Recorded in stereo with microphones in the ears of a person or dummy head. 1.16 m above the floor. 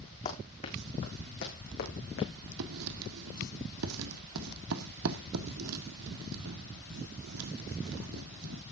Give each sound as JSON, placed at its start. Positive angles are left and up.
{"t": 0.2, "sound": "running footsteps", "side_deg": 40, "distance_m": 5.0}
{"t": 2.6, "sound": "writing", "side_deg": -80, "distance_m": 1.8}